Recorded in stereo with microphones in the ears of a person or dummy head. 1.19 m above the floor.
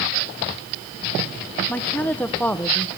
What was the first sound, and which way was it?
A woman speaking, 10° left (ahead or behind).